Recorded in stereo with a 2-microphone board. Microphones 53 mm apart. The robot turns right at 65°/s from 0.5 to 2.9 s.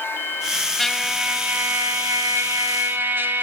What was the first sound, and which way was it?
A trumpet, 170° left.